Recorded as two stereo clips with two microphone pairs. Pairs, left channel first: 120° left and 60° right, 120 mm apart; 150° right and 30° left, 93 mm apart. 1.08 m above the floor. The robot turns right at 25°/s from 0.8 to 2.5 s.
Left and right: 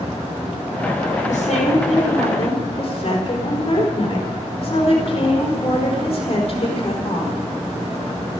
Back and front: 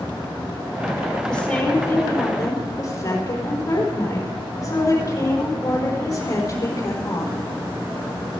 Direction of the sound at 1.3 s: 125° left.